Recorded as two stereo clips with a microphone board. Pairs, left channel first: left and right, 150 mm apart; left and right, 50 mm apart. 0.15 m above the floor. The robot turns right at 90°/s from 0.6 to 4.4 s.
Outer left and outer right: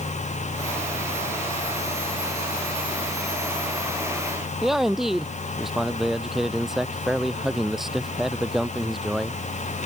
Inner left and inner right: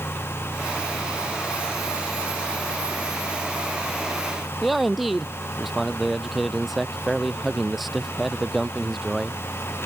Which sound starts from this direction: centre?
A man speaking, at 4.6 s.